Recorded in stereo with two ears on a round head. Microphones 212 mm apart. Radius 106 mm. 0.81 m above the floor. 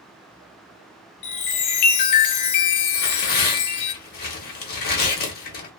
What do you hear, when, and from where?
1.2 s a chime: 80° left, 0.6 m
2.9 s tearing paper: 40° left (ahead or behind), 0.7 m